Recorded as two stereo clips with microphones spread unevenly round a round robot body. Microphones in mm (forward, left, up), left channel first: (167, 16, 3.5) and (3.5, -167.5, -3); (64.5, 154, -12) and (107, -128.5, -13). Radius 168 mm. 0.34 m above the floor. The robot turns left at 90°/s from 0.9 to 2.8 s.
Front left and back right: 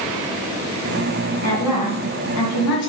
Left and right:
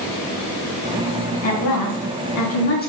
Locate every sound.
1.4 s a woman speaking: 165° left, 3 m; by 2.9 s 45° left, 3 m